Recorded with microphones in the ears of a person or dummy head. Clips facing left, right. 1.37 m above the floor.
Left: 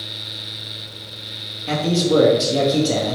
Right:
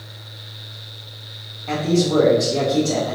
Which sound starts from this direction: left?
A man speaking, at 1.7 s.